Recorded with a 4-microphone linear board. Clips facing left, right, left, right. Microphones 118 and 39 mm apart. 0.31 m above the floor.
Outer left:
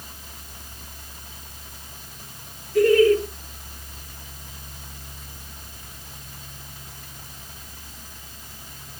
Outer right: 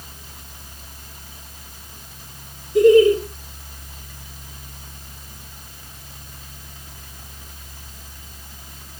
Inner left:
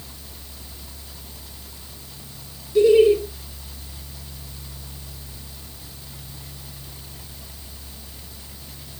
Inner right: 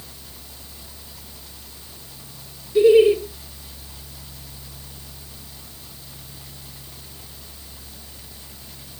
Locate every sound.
2.8 s laughter: 20° right (ahead or behind), 1.2 m